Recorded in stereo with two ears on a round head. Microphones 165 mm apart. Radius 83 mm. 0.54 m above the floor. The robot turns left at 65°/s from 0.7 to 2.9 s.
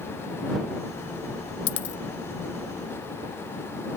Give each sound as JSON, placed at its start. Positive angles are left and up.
{"t": 1.7, "sound": "a dropped coin", "side_deg": 80}